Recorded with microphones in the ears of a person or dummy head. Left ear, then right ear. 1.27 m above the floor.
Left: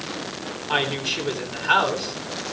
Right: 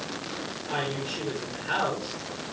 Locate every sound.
0.7 s a woman speaking: 50° left (ahead or behind), 9.5 m